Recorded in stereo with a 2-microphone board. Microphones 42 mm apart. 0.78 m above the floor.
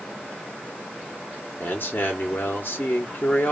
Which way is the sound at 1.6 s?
50° left (ahead or behind).